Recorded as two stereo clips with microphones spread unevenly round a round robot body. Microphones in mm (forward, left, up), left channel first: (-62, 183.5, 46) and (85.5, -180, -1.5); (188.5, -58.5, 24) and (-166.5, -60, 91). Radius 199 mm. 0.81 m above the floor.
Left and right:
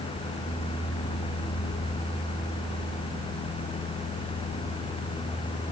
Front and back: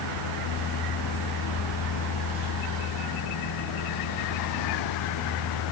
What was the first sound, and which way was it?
Only background noise.